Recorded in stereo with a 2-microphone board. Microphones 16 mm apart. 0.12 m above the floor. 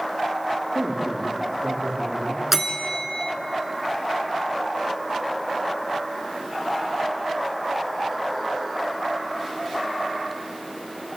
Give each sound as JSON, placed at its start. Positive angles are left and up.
{"t": 0.8, "sound": "a man speaking", "side_deg": -65, "distance_m": 8.0}
{"t": 2.5, "sound": "a bell", "side_deg": -15, "distance_m": 1.8}